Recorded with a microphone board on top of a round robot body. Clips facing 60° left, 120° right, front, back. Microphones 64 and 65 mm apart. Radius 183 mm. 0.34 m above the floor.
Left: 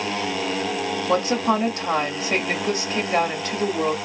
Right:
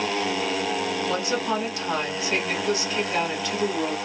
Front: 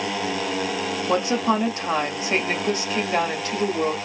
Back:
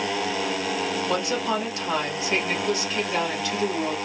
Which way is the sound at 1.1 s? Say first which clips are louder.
Left 8 dB, front 7 dB; 35° left.